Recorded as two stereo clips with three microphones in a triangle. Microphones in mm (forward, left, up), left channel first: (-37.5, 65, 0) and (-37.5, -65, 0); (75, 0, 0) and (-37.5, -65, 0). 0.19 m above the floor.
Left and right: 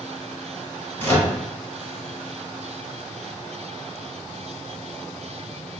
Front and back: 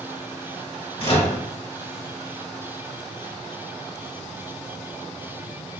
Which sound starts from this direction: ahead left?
A microwave, at 1.0 s.